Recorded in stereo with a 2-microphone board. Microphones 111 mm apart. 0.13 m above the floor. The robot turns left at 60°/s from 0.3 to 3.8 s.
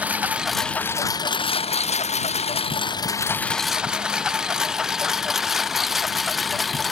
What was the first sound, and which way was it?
A lawn mower, 15° right (ahead or behind).